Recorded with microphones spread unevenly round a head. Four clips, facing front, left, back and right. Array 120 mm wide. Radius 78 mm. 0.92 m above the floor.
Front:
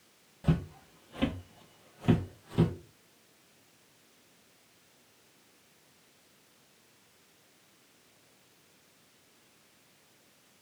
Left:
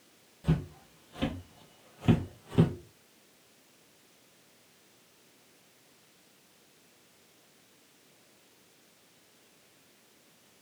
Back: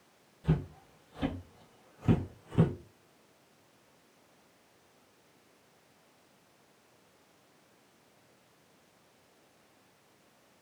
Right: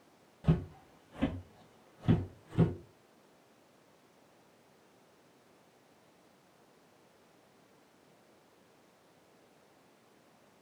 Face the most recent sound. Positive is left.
turn(degrees=80)